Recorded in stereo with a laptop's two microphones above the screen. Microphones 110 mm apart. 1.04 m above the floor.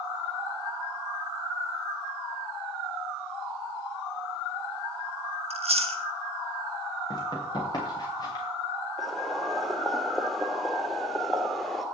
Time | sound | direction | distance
5.5 | chewing | 70° right (ahead or behind) | 1.8 m
7.1 | running footsteps | 40° left (ahead or behind) | 7 m
9.0 | boiling | centre (ahead or behind) | 2.5 m